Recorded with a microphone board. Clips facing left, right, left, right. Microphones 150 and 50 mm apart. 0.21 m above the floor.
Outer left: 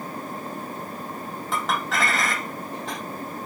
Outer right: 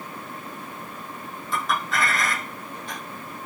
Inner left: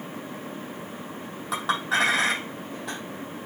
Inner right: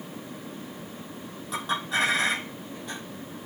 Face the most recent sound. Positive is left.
turn(degrees=80)